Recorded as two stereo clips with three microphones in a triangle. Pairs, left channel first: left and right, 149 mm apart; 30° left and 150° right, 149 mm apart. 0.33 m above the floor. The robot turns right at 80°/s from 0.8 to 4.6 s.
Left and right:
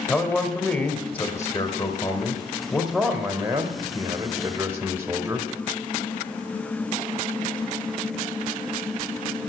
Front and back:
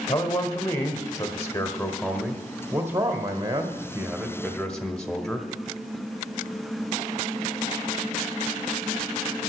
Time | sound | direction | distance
0.1 | a man speaking | 10° left | 1.3 m